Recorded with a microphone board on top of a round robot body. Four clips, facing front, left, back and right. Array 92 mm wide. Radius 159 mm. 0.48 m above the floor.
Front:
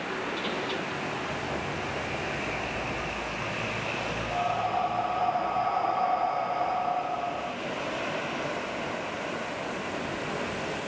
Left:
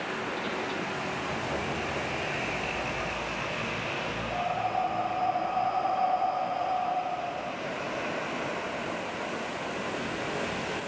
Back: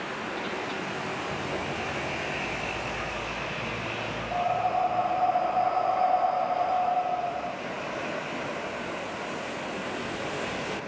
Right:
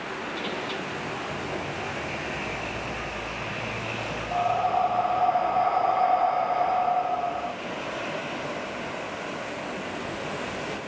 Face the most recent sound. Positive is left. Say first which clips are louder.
# right 7 dB, back 2 dB
turn(degrees=-75)